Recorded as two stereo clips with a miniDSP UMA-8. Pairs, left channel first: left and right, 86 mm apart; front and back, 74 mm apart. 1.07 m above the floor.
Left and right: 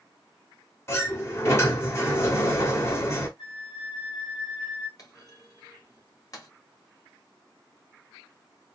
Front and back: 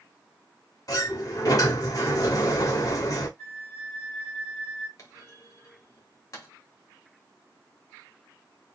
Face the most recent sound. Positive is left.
turn(degrees=45)